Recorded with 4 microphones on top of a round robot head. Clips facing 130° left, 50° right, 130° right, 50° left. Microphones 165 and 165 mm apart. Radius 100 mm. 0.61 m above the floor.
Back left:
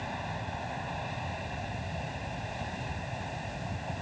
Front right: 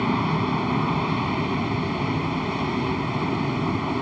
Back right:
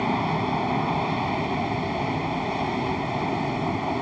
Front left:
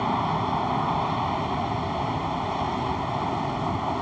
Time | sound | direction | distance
0.0 | an aircraft | 55° right | ?